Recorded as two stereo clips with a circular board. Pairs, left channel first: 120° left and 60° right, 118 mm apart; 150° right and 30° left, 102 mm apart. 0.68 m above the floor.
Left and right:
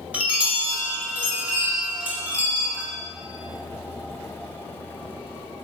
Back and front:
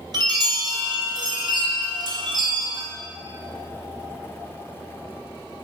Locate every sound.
0.1 s a chime: 10° left, 0.5 m